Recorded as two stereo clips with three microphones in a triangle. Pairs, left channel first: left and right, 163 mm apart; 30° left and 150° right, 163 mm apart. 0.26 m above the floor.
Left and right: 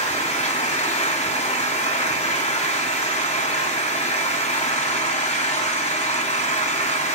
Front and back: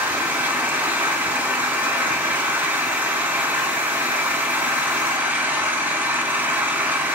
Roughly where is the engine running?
Behind left.